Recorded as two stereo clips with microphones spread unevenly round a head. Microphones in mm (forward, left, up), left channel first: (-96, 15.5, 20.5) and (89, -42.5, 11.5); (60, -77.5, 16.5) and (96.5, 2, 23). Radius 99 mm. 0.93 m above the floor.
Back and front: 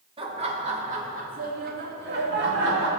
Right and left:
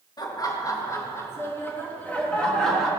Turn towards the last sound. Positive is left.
turn(degrees=-30)